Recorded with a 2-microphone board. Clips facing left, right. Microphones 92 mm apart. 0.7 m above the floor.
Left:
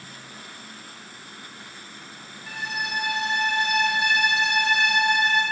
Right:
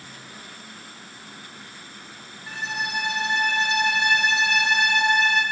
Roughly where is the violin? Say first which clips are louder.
Right 1 dB; right.